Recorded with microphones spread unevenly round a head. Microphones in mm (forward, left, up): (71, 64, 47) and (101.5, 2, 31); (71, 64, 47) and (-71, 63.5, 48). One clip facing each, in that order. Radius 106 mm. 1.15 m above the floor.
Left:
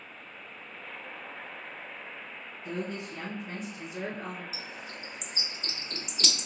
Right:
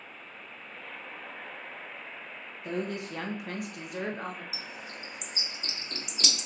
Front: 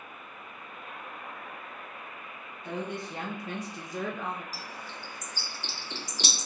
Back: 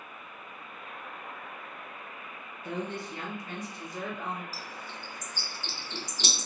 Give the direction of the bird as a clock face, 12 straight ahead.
11 o'clock.